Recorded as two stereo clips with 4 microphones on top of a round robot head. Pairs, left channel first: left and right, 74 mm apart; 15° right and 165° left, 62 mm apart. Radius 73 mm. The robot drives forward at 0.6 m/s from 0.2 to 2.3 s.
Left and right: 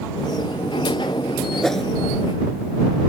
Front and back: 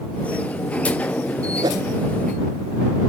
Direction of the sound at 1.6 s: 175° left.